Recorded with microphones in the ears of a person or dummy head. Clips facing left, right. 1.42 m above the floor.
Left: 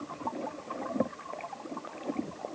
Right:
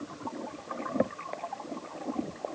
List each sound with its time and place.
Only background noise.